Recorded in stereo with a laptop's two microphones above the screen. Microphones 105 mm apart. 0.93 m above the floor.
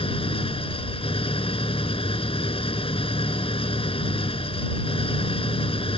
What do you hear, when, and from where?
0.0 s an engine running: 70° left (ahead or behind)